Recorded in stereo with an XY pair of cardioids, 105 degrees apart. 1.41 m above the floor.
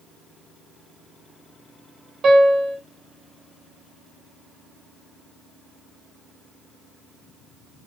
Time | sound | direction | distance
2.2 | a piano | 50° right | 1.4 m